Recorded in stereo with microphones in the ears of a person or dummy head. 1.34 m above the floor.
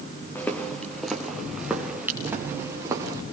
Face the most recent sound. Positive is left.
turn(degrees=-15)  # may be behind; listen again after turning